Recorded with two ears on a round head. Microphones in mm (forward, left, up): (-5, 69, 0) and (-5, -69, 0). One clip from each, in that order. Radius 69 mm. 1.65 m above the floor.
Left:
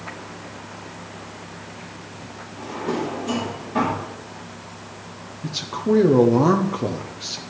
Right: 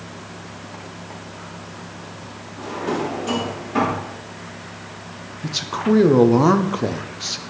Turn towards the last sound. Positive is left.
turn(degrees=-15)  # may be behind; listen again after turning